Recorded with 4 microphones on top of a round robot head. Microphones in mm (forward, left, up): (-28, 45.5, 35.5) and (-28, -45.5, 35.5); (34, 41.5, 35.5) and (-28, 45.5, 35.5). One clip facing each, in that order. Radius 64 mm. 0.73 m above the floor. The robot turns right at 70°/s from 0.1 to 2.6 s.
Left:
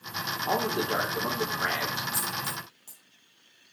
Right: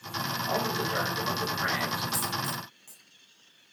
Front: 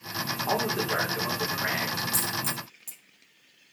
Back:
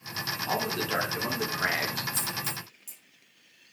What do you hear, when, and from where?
0.5 s a man speaking: 45° left, 2.5 m; by 2.0 s 155° left, 2.5 m
2.1 s a dropped coin: 20° right, 1.1 m; by 3.0 s 10° left, 1.1 m